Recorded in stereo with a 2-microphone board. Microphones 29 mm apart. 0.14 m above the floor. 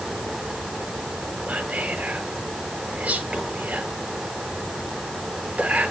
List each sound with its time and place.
1.5 s whispering: 50° right (ahead or behind), 1.6 m